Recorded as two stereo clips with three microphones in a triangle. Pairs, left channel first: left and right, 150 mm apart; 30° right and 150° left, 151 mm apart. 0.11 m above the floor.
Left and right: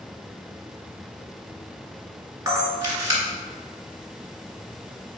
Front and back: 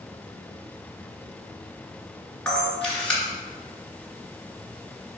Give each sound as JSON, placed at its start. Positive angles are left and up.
{"t": 2.5, "sound": "a camera shutter", "azimuth_deg": -100, "distance_m": 1.6}